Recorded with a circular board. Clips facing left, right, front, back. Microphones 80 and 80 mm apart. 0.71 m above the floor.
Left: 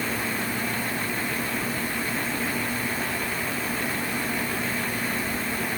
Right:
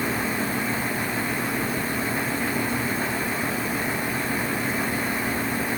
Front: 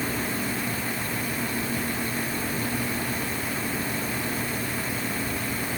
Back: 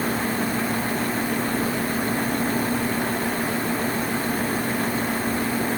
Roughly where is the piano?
I don't hear a piano.